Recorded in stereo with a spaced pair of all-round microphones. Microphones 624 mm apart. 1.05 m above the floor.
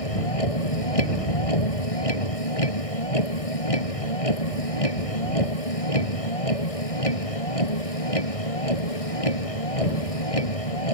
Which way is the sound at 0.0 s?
60° left (ahead or behind).